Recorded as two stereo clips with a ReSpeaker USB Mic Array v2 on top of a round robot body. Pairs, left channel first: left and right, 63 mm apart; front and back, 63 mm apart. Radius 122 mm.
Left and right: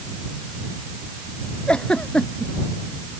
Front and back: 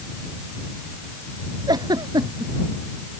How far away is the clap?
No clap in this recording.